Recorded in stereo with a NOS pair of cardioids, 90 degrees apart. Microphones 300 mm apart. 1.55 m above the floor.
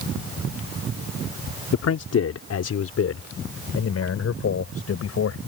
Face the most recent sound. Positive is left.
turn(degrees=50)